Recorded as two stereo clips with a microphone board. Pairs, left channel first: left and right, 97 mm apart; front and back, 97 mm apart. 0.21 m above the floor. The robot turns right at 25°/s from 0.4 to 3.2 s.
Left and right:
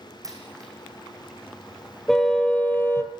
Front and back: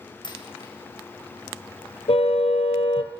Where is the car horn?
5° left, 2 m; by 3.1 s 30° left, 2 m.